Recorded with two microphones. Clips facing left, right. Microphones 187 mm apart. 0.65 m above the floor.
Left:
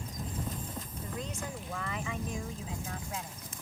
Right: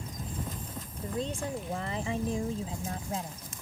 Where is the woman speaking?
30° right (ahead or behind); by 3.5 s 35° right (ahead or behind).